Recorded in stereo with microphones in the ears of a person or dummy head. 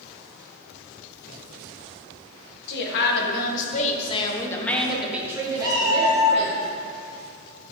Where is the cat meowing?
35° left (ahead or behind), 3.5 m.